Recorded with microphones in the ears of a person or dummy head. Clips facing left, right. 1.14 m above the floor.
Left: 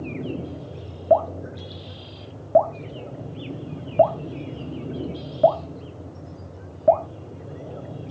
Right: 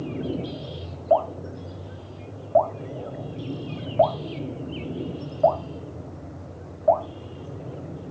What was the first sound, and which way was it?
Dripping, 40° left (ahead or behind).